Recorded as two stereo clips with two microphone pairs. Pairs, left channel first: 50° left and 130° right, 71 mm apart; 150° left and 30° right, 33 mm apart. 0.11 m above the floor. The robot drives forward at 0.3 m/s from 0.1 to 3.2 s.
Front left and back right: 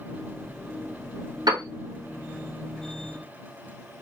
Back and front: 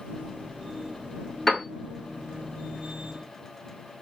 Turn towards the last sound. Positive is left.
turn(degrees=-145)